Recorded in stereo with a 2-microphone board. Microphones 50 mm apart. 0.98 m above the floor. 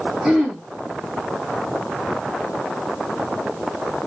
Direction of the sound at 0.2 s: 5° right (ahead or behind).